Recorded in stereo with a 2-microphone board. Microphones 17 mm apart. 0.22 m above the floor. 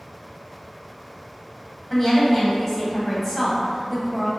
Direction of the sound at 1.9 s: 20° left (ahead or behind).